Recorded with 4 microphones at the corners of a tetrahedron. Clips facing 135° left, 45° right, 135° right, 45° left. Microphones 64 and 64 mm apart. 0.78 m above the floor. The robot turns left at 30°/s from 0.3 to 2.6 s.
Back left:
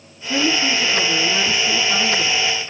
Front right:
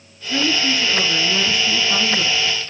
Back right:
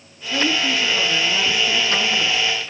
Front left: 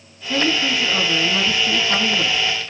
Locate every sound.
0.2 s a woman speaking: 95° left, 6.5 m; by 2.4 s 30° left, 6.5 m